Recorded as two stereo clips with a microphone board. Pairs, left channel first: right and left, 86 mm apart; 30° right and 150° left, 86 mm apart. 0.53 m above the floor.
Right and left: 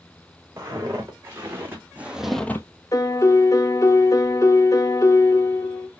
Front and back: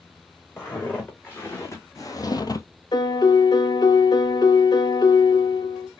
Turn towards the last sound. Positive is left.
turn(degrees=-45)